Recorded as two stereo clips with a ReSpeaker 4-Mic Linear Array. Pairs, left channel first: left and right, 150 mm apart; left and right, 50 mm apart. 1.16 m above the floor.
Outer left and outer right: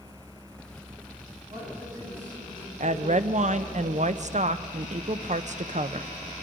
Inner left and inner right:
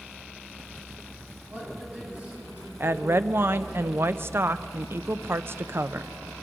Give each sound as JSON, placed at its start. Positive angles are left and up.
{"t": 1.5, "sound": "a woman speaking", "side_deg": -30, "distance_m": 9.0}
{"t": 2.8, "sound": "a woman speaking", "side_deg": -55, "distance_m": 0.7}